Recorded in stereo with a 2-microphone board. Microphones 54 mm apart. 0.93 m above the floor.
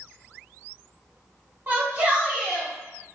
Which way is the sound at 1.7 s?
40° right (ahead or behind).